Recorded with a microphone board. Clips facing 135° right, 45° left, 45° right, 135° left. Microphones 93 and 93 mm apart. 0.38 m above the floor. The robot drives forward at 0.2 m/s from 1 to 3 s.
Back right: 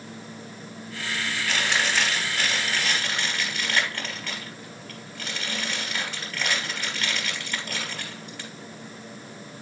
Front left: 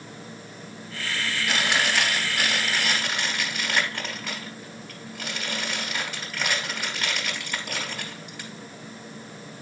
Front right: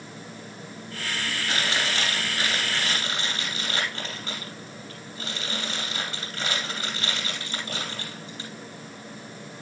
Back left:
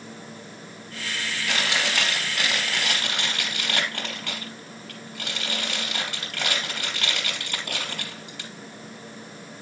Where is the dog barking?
I don't hear a dog barking.